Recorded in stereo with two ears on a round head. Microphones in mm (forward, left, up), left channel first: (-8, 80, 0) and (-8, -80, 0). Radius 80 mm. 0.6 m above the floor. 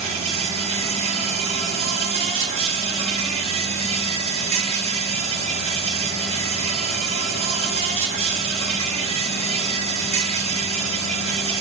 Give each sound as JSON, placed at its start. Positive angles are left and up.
{"t": 0.0, "sound": "an insect", "side_deg": -35, "distance_m": 4.0}